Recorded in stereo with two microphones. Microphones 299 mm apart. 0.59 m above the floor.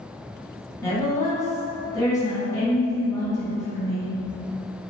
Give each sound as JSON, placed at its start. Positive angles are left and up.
{"t": 0.8, "sound": "a woman speaking", "side_deg": 10, "distance_m": 1.0}